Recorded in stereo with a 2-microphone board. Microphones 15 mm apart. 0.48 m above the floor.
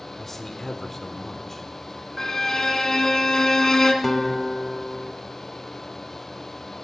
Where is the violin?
35° left (ahead or behind), 1.5 m.